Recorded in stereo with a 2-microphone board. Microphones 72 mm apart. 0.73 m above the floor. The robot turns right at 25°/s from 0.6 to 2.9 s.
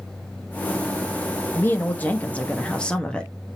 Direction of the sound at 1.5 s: 125° left.